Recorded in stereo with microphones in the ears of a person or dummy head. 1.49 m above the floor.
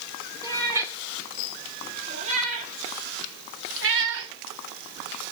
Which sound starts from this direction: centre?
A cat meowing, at 0.4 s.